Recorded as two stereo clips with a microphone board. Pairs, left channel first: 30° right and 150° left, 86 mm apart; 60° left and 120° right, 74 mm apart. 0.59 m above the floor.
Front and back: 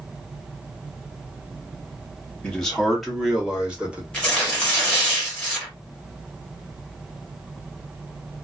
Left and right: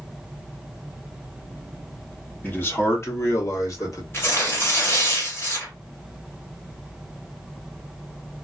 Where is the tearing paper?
40° left, 1.4 m.